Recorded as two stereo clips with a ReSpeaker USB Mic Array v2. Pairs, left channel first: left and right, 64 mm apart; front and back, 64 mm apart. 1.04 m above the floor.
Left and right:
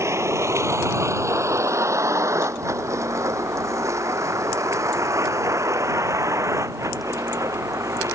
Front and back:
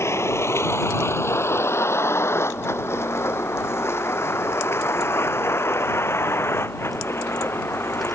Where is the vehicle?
45° right; by 8.2 s 50° right.